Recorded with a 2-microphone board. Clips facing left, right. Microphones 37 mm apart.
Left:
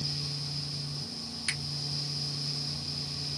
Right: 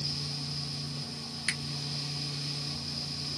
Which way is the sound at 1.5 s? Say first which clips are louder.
Right 1 dB; 15° right (ahead or behind).